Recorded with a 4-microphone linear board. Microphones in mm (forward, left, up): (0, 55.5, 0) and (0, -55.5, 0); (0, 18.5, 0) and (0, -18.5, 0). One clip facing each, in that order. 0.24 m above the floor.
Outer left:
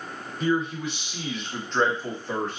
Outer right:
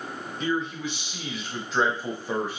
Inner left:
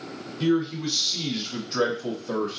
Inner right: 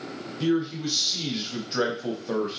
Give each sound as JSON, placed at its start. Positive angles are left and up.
{"t": 0.4, "sound": "a man speaking", "side_deg": 5, "distance_m": 1.1}